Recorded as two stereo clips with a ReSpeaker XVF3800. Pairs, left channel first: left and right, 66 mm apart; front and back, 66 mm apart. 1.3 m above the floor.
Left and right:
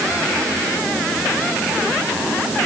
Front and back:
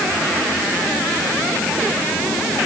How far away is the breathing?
No breathing in this recording.